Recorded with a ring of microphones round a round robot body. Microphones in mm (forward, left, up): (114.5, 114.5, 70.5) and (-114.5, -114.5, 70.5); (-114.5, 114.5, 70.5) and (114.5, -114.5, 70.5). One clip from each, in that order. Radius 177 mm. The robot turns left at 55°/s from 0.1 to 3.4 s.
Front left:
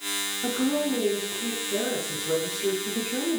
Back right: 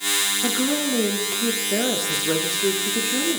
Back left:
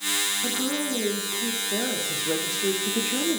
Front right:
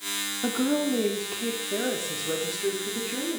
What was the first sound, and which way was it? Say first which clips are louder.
A woman speaking: back right 3 dB, front right 1 dB; 55° right.